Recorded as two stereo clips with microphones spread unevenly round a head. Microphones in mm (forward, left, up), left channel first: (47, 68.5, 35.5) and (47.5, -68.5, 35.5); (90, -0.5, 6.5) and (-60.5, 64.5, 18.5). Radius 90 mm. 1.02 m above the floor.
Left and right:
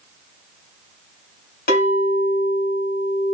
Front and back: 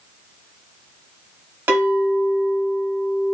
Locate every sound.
1.7 s a clink: 80° left, 2.0 m